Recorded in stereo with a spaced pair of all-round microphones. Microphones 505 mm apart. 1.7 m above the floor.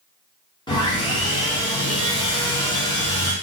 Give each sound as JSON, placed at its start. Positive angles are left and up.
{"t": 0.7, "sound": "sawing", "side_deg": 10, "distance_m": 0.9}